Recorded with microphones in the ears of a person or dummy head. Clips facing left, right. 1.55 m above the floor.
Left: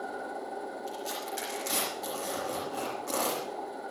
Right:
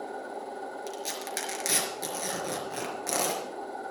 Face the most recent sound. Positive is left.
turn(degrees=-70)  # may be behind; listen again after turning